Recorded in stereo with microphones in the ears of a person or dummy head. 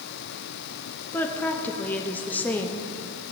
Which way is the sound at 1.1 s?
10° left (ahead or behind).